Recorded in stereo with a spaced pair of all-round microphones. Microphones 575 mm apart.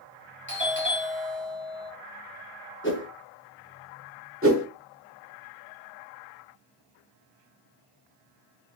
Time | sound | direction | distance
0.5 | a doorbell | 20° left (ahead or behind) | 0.9 m
2.8 | a whoosh | 20° left (ahead or behind) | 0.5 m
4.4 | a whoosh | 25° right (ahead or behind) | 0.7 m